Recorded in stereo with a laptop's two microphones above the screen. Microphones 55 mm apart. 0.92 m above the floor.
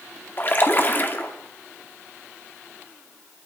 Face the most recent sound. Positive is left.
turn(degrees=35)  # may be behind; listen again after turning